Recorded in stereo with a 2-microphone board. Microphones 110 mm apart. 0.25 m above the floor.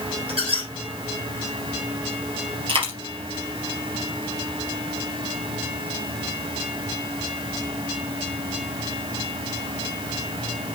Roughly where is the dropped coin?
Right.